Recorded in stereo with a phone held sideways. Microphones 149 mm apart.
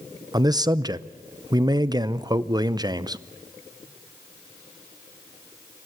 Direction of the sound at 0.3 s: 25° right (ahead or behind).